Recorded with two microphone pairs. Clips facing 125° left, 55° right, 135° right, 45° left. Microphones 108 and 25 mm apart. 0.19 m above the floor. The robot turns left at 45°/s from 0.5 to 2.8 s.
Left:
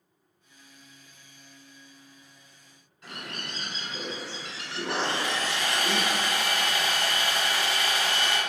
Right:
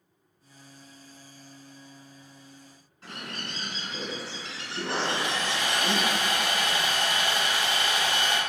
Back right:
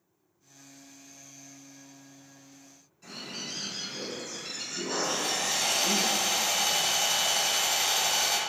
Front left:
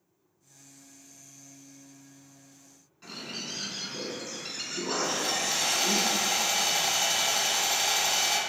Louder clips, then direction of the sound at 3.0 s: Right 1 dB, front left 1 dB; 5° right.